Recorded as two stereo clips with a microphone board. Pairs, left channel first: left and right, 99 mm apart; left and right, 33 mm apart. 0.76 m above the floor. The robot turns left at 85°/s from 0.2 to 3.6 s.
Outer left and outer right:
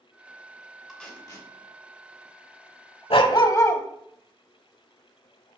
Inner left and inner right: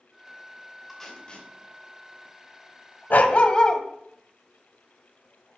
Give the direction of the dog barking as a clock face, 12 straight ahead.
9 o'clock.